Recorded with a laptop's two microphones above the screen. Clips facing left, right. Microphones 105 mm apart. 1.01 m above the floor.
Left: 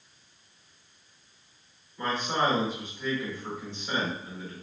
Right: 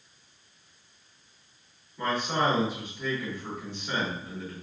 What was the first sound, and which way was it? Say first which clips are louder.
A man speaking: right 1 dB; 15° right (ahead or behind).